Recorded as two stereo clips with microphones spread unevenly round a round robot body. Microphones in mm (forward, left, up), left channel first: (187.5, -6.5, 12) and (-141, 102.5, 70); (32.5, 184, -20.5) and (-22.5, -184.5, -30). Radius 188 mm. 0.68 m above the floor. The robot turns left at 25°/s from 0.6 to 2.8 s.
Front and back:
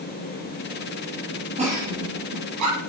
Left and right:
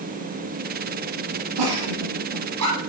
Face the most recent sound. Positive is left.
turn(degrees=-155)